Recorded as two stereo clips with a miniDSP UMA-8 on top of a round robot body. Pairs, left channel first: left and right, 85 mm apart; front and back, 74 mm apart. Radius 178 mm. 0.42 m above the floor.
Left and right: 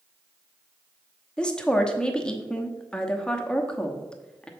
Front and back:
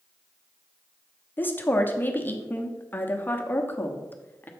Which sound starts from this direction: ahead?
A woman speaking, at 1.4 s.